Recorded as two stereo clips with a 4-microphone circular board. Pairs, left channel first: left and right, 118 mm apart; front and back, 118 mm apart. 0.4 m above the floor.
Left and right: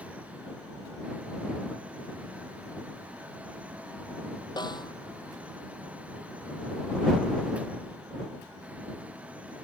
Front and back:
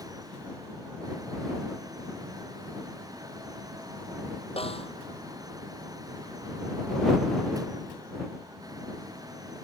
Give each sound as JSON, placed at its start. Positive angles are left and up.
{"t": 4.6, "sound": "a snare drum", "azimuth_deg": 35}